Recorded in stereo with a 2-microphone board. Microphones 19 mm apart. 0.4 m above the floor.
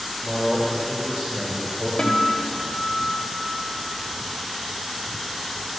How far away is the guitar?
About 1.3 m.